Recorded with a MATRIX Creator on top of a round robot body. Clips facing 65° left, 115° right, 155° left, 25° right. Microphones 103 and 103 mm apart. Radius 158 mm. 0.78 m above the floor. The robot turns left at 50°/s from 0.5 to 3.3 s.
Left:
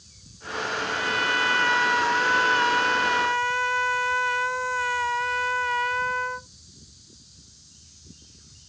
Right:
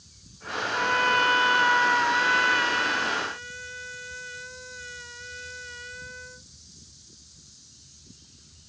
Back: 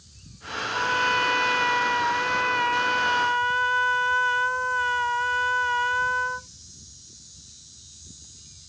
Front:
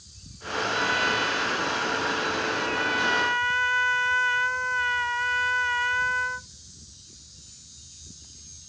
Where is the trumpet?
140° right; by 6.5 s 90° left.